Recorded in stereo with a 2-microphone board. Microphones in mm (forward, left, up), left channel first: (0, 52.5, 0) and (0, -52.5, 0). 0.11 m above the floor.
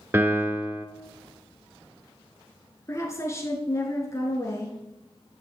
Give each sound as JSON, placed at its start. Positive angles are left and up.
{"t": 0.1, "sound": "a piano", "side_deg": -20, "distance_m": 0.8}
{"t": 2.9, "sound": "a woman speaking", "side_deg": 30, "distance_m": 1.2}